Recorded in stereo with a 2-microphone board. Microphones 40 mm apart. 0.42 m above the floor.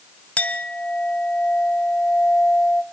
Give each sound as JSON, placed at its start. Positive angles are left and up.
{"t": 0.4, "sound": "a clink", "side_deg": 35, "distance_m": 1.2}